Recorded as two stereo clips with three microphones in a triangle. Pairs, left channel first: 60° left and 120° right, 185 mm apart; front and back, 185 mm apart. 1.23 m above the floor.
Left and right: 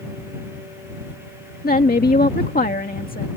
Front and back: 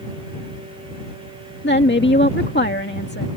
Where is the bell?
I don't hear a bell.